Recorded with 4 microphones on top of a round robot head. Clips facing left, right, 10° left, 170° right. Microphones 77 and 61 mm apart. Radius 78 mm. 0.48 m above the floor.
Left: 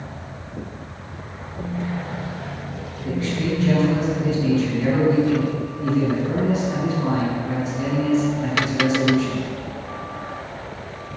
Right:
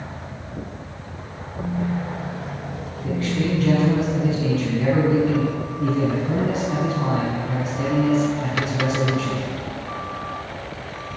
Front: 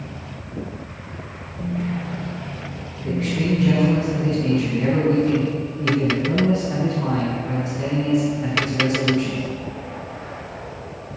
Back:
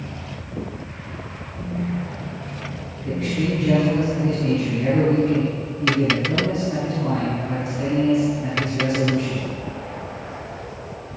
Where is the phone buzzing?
50° right, 7 m.